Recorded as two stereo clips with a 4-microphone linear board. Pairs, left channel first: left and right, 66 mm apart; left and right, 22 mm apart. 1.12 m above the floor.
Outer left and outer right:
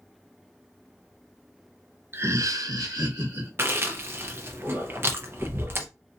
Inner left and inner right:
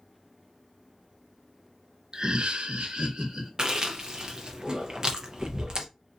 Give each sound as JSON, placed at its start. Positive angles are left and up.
{"t": 2.1, "sound": "laughter", "side_deg": -35, "distance_m": 0.5}
{"t": 3.6, "sound": "chewing", "side_deg": -40, "distance_m": 0.6}